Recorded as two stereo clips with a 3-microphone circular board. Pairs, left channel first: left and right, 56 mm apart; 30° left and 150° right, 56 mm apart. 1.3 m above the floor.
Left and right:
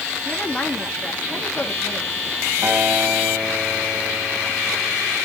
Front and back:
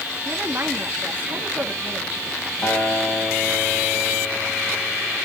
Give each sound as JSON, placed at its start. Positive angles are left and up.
{"t": 0.2, "sound": "a woman speaking", "azimuth_deg": 160, "distance_m": 2.5}
{"t": 2.6, "sound": "a guitar", "azimuth_deg": -20, "distance_m": 6.5}